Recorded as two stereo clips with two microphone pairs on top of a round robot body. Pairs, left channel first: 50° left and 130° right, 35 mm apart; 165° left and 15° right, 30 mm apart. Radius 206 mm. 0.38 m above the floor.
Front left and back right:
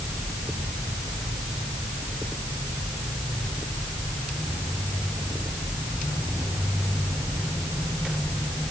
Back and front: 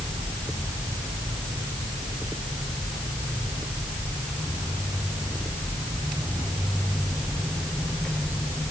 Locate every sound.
Only background noise.